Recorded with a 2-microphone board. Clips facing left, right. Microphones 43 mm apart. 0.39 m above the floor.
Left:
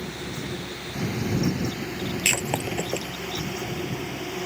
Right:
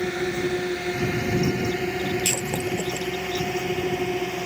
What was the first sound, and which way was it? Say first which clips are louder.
A drone: right 8 dB; 80° right.